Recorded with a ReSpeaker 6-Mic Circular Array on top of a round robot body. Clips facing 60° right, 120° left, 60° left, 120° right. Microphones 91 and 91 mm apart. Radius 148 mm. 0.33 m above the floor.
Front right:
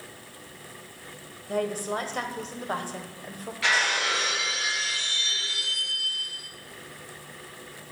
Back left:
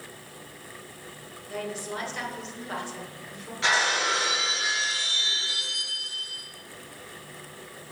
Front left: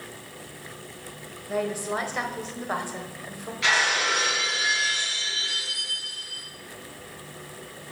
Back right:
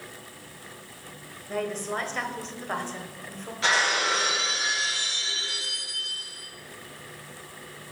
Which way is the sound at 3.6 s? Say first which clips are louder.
Back left 1 dB, even; straight behind.